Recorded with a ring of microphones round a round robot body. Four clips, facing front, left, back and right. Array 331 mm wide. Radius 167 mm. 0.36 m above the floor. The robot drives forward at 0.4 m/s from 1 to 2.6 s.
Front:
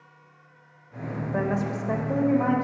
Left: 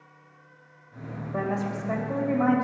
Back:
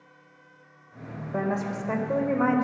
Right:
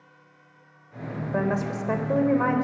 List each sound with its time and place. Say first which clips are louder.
1.3 s a woman speaking: right 2 dB, front 1 dB; 80° right, 1.4 m; by 2.6 s 110° right, 1.5 m